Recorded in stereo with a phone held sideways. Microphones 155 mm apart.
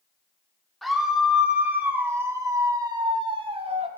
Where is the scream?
Centre (ahead or behind), 2.5 m; by 3.9 s 40° right (ahead or behind), 1.9 m.